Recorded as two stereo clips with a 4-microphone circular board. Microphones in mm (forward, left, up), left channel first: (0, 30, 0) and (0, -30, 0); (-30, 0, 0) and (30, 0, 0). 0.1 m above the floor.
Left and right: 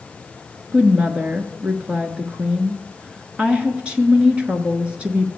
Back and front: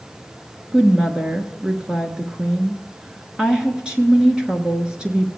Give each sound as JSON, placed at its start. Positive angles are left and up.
{"t": 0.7, "sound": "a woman speaking", "azimuth_deg": -50, "distance_m": 1.1}